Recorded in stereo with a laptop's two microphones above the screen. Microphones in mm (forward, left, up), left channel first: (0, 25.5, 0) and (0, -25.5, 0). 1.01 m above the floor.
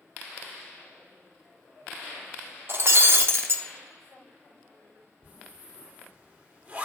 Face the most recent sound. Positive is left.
turn(degrees=-35)  # may be behind; listen again after turning